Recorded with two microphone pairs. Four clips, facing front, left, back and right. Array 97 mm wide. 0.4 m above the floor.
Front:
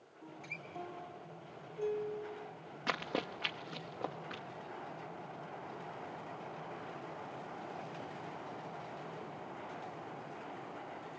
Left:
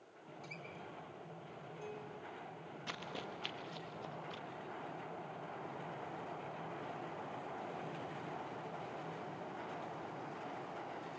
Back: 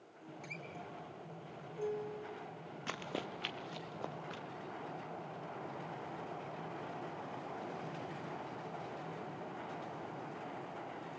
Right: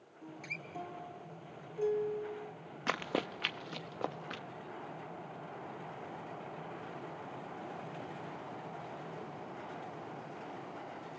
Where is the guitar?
100° right, 3.5 m.